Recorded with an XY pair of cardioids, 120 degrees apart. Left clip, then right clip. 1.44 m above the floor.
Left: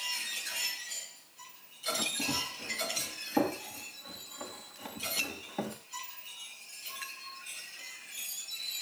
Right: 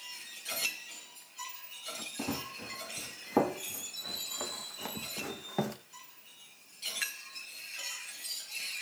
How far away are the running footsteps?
About 5 m.